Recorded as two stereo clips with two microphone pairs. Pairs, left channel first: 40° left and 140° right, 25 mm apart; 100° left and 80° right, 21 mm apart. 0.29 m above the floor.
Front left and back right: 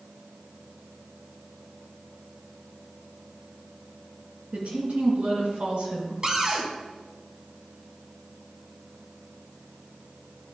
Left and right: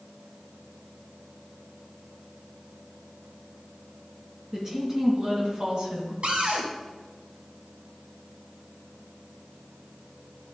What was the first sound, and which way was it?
A woman speaking, 145° right.